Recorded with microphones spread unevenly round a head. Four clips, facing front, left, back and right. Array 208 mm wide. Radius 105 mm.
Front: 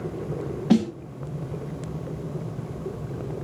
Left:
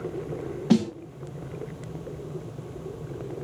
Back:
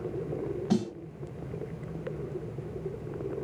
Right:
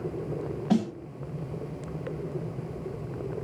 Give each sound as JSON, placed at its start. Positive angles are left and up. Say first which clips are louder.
{"t": 0.7, "sound": "a snare drum", "louder": "left 4 dB, front 9 dB", "azimuth_deg": 35, "distance_m": 1.2}